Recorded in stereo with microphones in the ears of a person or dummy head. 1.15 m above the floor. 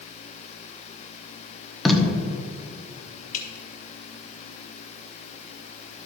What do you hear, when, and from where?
1.9 s tape being pulled: centre (ahead or behind), 1.0 m
3.3 s dripping: 45° left (ahead or behind), 1.8 m